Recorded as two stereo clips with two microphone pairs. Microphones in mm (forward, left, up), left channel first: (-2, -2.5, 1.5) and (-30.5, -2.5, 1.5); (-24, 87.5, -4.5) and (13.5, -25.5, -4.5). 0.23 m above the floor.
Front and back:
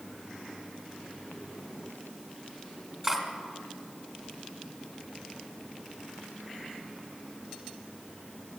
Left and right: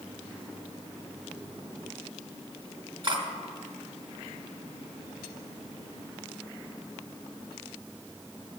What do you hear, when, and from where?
3.0 s cutlery clinking: 105° right, 1.3 m